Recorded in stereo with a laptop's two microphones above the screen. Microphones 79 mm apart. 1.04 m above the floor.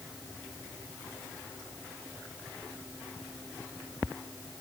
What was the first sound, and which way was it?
Only background noise.